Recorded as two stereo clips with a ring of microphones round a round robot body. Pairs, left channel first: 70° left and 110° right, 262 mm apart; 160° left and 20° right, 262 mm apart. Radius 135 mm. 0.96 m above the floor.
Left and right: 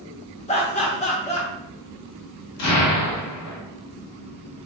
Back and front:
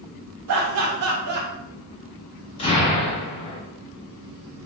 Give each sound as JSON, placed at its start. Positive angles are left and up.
{"t": 0.5, "sound": "laughter", "azimuth_deg": 0, "distance_m": 1.8}
{"t": 2.6, "sound": "an explosion", "azimuth_deg": 90, "distance_m": 1.8}